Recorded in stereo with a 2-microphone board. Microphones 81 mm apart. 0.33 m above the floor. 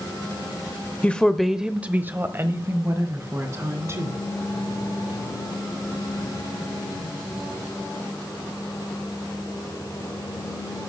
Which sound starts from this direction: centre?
A woman speaking, at 1.0 s.